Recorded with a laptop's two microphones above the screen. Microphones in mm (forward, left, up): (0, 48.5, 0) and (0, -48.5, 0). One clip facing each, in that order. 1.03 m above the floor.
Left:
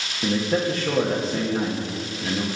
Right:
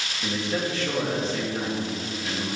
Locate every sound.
0.2 s a man speaking: 30° left (ahead or behind), 1.3 m